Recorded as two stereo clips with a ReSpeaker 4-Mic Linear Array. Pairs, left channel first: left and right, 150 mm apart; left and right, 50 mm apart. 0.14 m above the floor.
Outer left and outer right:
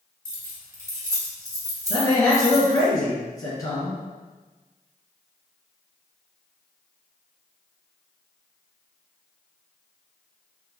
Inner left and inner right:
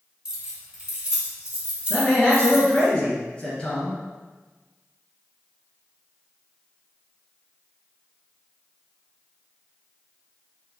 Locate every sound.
0.2 s keys jangling: 15° right (ahead or behind), 1.1 m; by 2.9 s 20° right (ahead or behind), 1.2 m
1.9 s a man speaking: 20° left (ahead or behind), 1.4 m